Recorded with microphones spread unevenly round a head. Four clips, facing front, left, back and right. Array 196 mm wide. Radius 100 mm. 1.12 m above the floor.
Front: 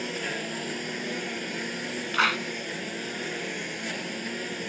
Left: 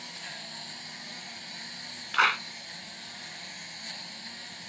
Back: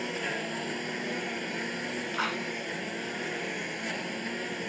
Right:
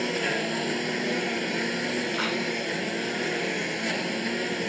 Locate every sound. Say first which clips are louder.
0.0 s a lawn mower: right 18 dB, front 1 dB; 80° right
2.1 s a clap: left 2 dB, front 8 dB; 35° left